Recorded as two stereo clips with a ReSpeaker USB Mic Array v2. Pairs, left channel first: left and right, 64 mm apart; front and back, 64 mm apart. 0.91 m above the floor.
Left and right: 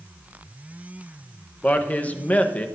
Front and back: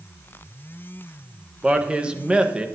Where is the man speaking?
125° left, 0.8 m.